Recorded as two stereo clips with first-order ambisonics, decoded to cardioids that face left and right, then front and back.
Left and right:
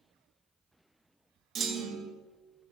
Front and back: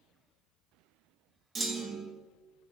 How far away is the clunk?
About 1.0 m.